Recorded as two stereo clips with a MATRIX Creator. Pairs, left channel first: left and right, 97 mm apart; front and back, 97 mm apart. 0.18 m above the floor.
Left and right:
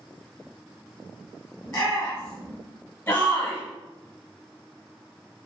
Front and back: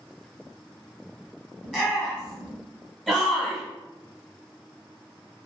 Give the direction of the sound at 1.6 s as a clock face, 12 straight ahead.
10 o'clock.